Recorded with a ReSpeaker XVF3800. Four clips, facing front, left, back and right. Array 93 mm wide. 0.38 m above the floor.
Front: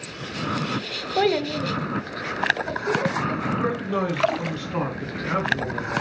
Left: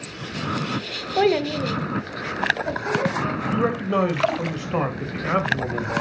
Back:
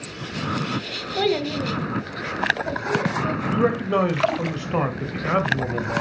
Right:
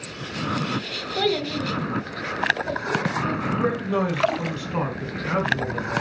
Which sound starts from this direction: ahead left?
A child speaking, at 1.2 s.